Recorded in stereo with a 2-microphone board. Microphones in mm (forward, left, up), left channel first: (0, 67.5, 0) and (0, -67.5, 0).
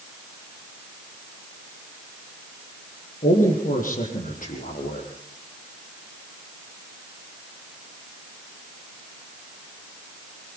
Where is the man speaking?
80° left, 7.5 m.